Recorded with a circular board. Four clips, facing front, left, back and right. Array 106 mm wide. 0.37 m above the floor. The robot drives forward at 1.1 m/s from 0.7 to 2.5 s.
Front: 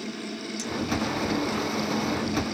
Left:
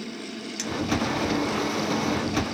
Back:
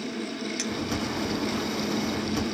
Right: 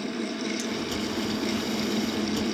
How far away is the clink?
About 2.0 m.